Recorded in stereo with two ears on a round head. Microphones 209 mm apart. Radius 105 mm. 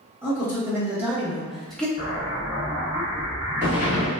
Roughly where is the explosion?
Right.